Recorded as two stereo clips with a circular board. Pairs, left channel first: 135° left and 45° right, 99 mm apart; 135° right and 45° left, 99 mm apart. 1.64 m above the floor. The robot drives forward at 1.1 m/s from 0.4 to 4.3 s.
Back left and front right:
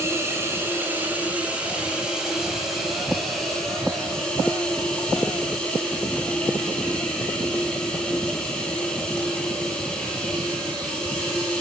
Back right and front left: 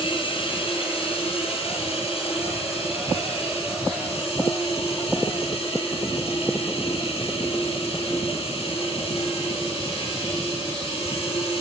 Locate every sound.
0.0 s running water: 110° right, 4.5 m; by 11.6 s 145° right, 7 m